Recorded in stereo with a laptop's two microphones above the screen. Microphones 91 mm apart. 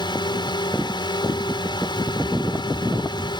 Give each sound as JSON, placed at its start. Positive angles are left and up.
{"t": 0.0, "sound": "a drone", "side_deg": 55}